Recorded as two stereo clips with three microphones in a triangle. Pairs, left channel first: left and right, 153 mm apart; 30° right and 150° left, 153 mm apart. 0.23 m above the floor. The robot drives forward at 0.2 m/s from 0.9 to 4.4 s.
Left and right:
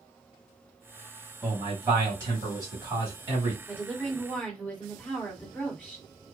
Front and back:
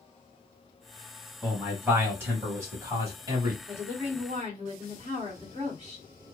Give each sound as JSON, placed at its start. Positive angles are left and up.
{"t": 1.4, "sound": "a man speaking", "azimuth_deg": -135, "distance_m": 1.2}
{"t": 3.7, "sound": "a woman speaking", "azimuth_deg": 165, "distance_m": 1.7}